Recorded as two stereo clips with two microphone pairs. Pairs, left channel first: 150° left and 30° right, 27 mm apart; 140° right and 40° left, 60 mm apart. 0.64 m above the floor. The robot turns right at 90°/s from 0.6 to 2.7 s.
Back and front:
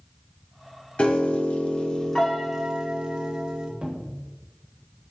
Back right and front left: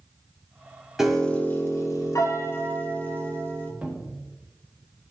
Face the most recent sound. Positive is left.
turn(degrees=-20)